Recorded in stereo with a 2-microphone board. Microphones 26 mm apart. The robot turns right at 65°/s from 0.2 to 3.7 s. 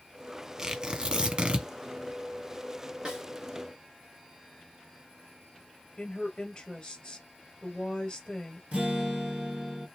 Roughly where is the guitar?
Right.